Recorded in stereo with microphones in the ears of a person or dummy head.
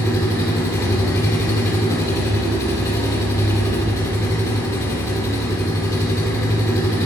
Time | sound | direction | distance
0.0 | an engine running | 15° left (ahead or behind) | 1.7 m